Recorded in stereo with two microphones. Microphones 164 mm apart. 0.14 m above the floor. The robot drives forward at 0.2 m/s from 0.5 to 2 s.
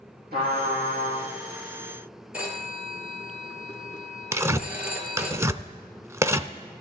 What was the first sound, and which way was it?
A trumpet, 70° right (ahead or behind).